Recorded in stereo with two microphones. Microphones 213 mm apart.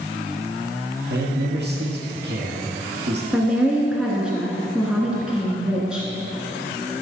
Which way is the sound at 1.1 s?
55° right (ahead or behind).